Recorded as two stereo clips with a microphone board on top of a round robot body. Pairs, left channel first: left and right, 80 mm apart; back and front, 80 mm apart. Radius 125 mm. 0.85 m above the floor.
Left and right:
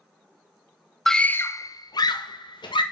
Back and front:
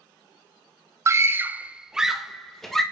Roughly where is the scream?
Ahead.